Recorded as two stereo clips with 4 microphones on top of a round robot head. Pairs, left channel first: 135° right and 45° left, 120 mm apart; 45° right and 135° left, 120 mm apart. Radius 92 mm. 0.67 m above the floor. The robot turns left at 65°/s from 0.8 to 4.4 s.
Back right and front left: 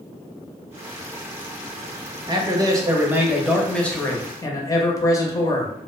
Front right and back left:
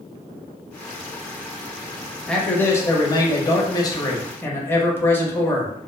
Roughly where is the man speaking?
Ahead left.